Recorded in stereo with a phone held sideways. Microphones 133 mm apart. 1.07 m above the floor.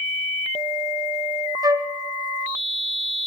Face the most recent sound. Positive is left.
turn(degrees=-30)  # may be behind; listen again after turning